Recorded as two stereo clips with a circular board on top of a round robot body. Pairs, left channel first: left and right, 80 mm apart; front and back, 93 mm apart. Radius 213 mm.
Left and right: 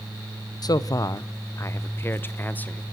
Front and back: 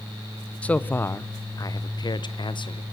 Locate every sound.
0.6 s a man speaking: 75° left, 1.0 m; by 2.8 s 20° left, 1.6 m